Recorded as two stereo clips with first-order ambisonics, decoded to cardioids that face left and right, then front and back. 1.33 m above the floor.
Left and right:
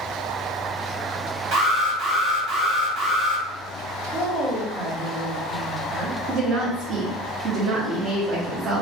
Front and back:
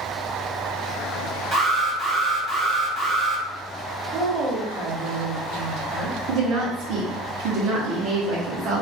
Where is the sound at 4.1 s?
120° right, 0.9 m.